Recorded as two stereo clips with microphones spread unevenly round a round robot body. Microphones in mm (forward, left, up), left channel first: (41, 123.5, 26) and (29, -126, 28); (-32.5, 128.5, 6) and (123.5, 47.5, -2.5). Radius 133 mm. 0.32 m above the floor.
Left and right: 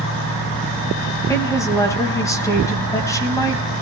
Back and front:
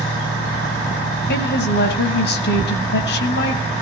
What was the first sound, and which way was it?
A woman speaking, 165° left.